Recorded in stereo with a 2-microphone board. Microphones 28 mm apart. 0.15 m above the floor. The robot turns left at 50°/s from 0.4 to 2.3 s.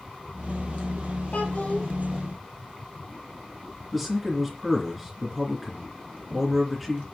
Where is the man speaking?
5° right (ahead or behind), 2.5 m.